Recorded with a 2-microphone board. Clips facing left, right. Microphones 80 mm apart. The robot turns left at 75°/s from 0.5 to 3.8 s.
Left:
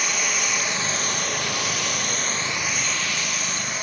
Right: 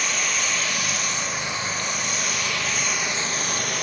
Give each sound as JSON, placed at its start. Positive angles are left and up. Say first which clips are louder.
{"t": 0.0, "sound": "running water", "louder": "even", "azimuth_deg": 175, "distance_m": 1.7}